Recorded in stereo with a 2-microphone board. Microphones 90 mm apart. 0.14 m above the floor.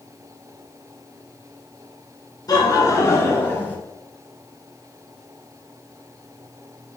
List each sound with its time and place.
2.5 s laughter: 45° left (ahead or behind), 1.5 m; by 3.8 s 15° left (ahead or behind), 1.5 m